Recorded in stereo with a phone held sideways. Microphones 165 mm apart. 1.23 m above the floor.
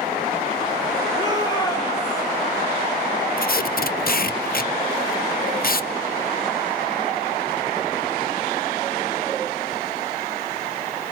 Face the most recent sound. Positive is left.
turn(degrees=60)  # may be behind; listen again after turning